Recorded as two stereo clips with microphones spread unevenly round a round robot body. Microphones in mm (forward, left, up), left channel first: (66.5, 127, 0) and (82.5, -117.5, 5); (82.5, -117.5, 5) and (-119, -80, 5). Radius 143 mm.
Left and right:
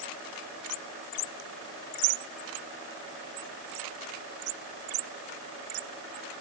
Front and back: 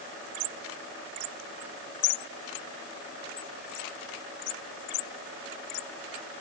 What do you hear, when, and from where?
Only background noise.